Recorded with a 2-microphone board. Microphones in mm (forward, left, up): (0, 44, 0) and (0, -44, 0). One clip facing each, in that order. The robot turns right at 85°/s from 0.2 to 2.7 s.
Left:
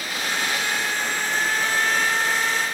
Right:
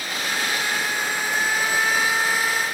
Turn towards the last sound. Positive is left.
No sound to turn to.